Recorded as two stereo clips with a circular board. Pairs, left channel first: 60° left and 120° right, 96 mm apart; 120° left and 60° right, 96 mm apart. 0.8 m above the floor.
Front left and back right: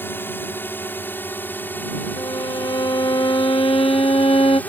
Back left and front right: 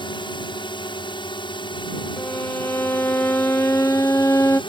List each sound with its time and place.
0.0 s a drone: 125° left; by 4.7 s 130° left
2.2 s a violin: 60° left